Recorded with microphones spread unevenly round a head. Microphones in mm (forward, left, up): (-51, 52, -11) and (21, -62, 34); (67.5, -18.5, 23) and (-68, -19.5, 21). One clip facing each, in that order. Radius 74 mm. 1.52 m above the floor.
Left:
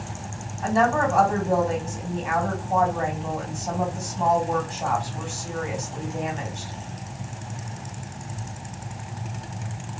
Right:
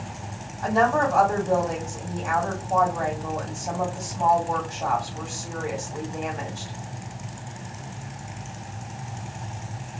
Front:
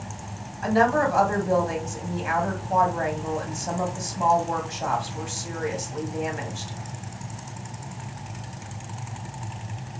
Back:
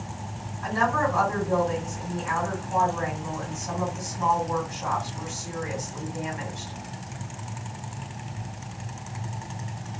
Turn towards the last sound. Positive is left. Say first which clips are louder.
# even, front 4 dB
turn(degrees=30)